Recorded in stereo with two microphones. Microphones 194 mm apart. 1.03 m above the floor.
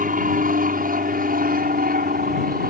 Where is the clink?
I don't hear a clink.